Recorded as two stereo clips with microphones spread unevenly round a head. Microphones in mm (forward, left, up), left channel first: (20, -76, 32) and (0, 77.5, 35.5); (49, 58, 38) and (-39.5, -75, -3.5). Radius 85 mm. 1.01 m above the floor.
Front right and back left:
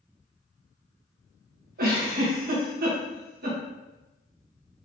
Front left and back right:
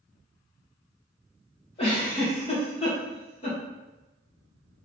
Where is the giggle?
120° left, 1.3 m.